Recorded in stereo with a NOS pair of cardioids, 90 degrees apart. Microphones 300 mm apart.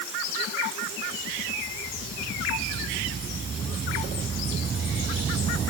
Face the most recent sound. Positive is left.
No sound to turn to.